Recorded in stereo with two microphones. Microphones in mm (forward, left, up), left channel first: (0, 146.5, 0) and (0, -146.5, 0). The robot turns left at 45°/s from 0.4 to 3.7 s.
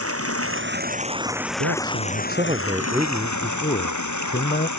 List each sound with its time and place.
0.0 s running water: 130° right; by 4.8 s 85° left
1.6 s a man speaking: 115° right; by 4.7 s 150° left